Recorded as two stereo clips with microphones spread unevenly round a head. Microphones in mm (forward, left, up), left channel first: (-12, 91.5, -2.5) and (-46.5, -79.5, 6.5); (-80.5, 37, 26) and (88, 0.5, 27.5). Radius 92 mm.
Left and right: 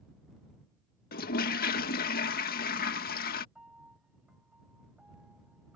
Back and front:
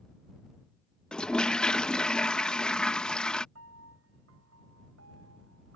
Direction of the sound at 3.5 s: 15° right.